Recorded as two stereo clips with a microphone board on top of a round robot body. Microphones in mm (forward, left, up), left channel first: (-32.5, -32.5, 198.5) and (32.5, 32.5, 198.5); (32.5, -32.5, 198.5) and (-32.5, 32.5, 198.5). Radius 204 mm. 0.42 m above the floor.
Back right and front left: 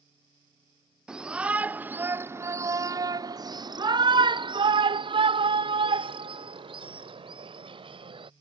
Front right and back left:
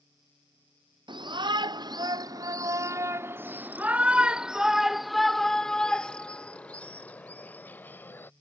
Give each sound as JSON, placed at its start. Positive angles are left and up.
{"t": 1.1, "sound": "a shout", "azimuth_deg": 125}